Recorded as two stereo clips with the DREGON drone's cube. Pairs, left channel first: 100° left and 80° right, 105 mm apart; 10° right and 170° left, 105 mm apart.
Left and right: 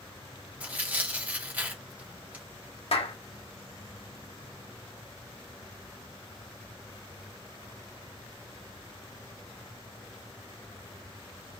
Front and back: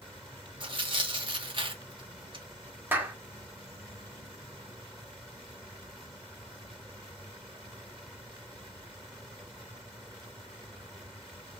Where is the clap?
100° left, 1.6 m.